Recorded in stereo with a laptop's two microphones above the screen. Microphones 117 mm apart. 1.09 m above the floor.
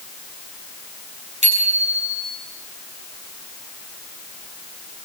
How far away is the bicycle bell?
About 7.5 m.